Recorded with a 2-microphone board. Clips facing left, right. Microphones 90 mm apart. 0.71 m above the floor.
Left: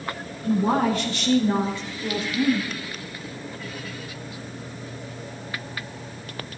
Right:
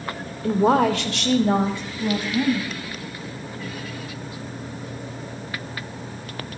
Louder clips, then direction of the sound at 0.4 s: Right 3 dB; 75° right (ahead or behind).